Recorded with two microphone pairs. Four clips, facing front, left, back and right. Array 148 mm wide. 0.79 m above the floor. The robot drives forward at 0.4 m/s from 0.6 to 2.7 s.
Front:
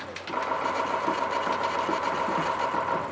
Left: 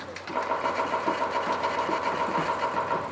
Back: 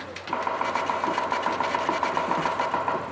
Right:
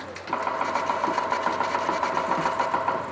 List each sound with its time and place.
0.3 s chopping: 125° right, 4.5 m; by 3.0 s 135° right, 5 m